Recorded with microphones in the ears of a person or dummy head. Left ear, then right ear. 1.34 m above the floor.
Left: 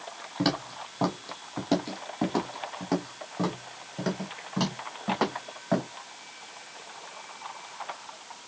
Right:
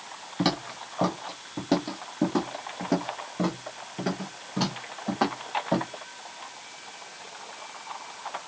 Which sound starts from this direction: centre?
Footsteps, at 0.4 s.